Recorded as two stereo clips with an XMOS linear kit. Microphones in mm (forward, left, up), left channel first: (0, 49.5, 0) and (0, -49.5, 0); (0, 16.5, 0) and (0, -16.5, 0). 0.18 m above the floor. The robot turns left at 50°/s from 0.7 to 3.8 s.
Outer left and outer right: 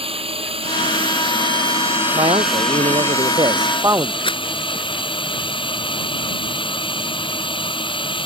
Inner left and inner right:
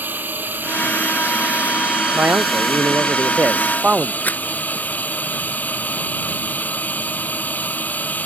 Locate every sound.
0.0 s a drone: 90° right; by 8.3 s 115° left
2.1 s a man speaking: 65° right; by 4.2 s 145° right
4.2 s a rattle: 65° left (ahead or behind)